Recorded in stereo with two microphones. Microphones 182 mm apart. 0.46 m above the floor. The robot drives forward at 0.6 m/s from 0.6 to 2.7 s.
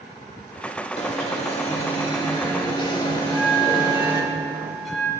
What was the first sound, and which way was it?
An alarm, 40° left (ahead or behind).